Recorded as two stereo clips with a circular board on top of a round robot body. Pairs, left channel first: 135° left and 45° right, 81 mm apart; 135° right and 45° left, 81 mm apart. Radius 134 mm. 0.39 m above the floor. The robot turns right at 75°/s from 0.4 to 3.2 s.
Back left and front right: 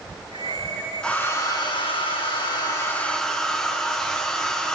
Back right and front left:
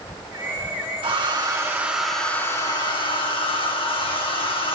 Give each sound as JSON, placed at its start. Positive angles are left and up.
{"t": 1.0, "sound": "a hair dryer", "azimuth_deg": 55, "distance_m": 2.0}